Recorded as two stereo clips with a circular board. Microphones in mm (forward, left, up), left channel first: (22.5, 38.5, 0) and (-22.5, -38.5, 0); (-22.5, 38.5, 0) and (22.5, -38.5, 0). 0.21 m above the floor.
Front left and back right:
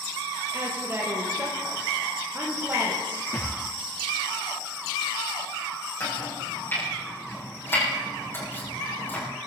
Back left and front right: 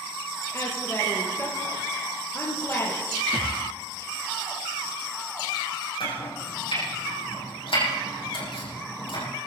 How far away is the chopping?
About 7 m.